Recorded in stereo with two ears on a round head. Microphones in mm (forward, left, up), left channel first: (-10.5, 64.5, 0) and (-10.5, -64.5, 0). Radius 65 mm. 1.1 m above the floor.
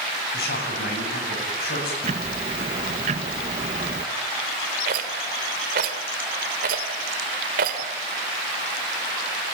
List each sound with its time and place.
0.3 s a man speaking: 85° left, 8.5 m
2.0 s ticking: 45° right (ahead or behind), 1.0 m
4.9 s a rattle: 70° right (ahead or behind), 2 m